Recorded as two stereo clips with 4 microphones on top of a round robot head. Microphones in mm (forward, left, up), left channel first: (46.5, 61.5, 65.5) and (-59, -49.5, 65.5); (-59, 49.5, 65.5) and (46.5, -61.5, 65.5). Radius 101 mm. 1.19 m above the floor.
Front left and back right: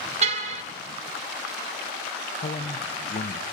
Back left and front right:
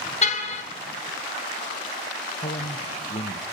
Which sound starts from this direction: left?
A man speaking, at 2.4 s.